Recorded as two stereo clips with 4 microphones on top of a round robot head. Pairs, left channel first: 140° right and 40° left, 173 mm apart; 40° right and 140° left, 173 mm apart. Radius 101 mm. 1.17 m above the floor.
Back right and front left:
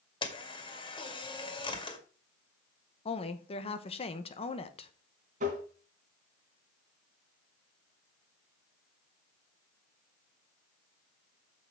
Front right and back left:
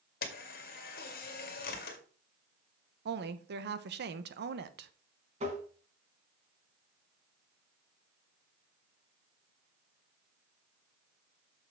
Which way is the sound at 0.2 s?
80° right.